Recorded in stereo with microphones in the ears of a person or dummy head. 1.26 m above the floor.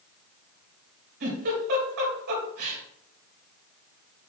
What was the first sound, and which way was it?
A giggle, 50° right (ahead or behind).